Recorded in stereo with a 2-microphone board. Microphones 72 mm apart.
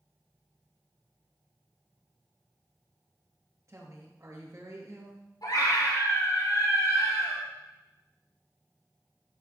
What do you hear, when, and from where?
3.7 s a woman speaking: 45° right (ahead or behind), 3 m
5.4 s a scream: 55° left (ahead or behind), 5.5 m